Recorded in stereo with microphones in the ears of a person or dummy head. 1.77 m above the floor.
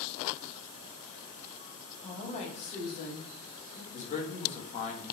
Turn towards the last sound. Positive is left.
turn(degrees=45)  # may be behind; listen again after turning